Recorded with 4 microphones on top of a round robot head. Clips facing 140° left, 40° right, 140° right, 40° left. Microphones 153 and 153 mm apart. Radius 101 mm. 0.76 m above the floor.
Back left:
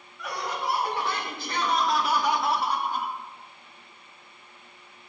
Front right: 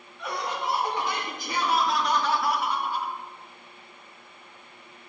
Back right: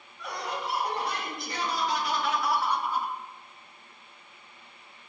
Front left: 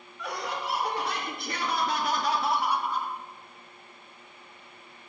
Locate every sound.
0.2 s laughter: 25° left, 4 m; by 3.2 s 150° left, 1.6 m